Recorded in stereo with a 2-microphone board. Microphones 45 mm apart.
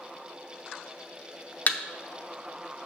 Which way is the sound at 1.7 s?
35° left (ahead or behind).